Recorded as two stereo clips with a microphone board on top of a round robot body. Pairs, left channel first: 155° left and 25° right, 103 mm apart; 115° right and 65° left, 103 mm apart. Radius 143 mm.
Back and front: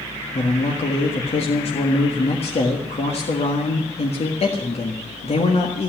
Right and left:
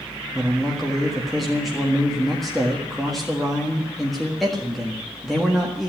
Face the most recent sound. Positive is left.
turn(degrees=160)